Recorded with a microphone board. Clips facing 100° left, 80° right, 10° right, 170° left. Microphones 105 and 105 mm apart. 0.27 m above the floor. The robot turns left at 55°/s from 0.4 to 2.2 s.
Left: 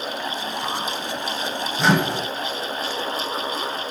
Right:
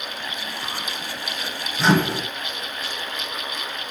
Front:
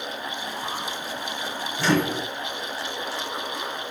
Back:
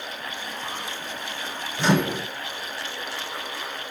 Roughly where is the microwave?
Behind.